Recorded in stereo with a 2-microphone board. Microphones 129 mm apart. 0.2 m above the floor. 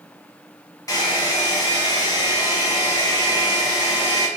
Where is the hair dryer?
30° left (ahead or behind), 1.1 m.